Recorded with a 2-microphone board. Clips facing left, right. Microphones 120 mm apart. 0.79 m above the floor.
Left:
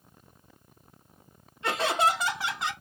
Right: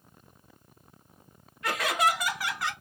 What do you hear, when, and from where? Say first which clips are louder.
1.6 s laughter: left 1 dB; 25° left (ahead or behind), 0.9 m; by 2.7 s 20° left (ahead or behind), 1.0 m